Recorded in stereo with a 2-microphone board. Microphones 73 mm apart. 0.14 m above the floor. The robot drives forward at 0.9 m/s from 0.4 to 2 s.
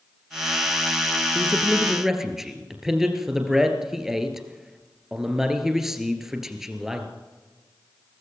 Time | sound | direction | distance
1.4 | a man speaking | 5° right (ahead or behind) | 2.0 m